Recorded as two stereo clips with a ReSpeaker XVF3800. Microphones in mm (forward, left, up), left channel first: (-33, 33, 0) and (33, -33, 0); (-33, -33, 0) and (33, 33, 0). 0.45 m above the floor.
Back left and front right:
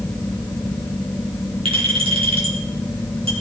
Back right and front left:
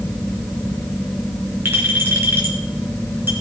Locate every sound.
1.6 s a clink: 25° right, 3 m